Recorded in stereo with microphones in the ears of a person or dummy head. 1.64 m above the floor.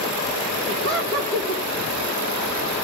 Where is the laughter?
60° right (ahead or behind), 2.0 m.